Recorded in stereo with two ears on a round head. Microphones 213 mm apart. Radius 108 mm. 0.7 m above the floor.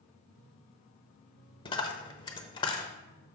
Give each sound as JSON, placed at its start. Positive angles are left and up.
{"t": 1.6, "sound": "a dropped coin", "side_deg": 20, "distance_m": 1.1}